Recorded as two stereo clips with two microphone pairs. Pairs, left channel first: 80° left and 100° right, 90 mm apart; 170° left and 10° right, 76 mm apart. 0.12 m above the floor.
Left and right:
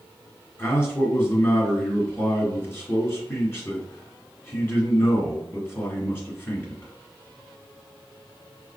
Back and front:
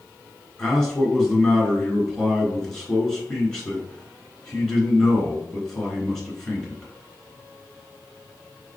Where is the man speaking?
95° left, 1.6 m.